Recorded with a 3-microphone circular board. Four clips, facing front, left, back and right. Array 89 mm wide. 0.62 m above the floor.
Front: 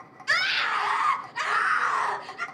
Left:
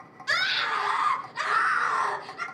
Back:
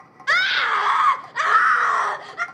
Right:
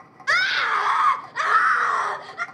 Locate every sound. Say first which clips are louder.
0.3 s a scream: right 6 dB, back 6 dB; 140° right, 2.5 m; by 2.5 s 155° right, 3.5 m